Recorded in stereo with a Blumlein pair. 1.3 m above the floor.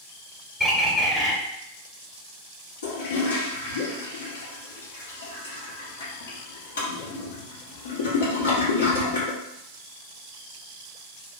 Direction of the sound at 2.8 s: 60° left.